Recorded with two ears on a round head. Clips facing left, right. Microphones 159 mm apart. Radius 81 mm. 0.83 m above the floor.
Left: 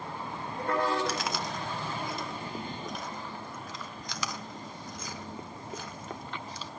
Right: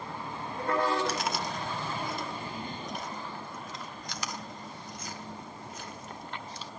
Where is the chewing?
65° left (ahead or behind), 1.3 m.